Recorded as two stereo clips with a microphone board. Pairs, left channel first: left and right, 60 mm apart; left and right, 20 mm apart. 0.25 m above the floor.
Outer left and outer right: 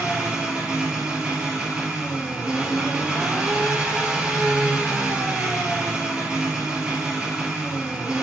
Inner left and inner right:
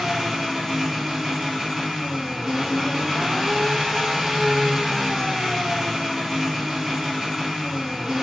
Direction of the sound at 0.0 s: 15° right (ahead or behind).